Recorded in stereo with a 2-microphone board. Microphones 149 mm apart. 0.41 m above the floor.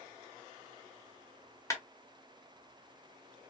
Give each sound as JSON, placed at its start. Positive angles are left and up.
{"t": 1.7, "sound": "a clap", "side_deg": 20, "distance_m": 1.5}